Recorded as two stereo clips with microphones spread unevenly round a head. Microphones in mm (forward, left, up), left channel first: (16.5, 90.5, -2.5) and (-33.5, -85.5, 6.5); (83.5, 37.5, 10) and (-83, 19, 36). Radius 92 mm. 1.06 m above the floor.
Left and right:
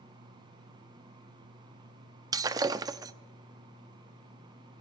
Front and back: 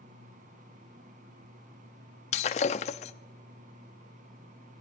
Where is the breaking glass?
45° right, 0.5 m.